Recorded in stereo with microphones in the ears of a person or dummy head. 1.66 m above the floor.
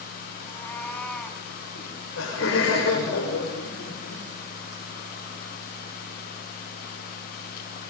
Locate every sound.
0.4 s a cat meowing: 20° left (ahead or behind), 2.5 m; by 1.4 s 10° left (ahead or behind), 3.5 m
1.8 s laughter: 80° left, 5 m